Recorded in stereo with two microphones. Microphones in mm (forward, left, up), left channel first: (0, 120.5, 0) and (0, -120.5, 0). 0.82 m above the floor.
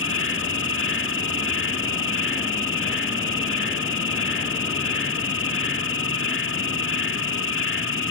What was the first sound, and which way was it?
An insect, 60° left (ahead or behind).